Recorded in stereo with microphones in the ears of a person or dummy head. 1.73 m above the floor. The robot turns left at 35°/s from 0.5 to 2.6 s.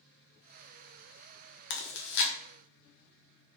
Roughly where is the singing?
No singing in this recording.